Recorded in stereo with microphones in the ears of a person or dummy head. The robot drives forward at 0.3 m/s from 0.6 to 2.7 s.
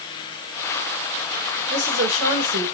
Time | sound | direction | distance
1.7 | a woman speaking | 75° right (ahead or behind) | 5 m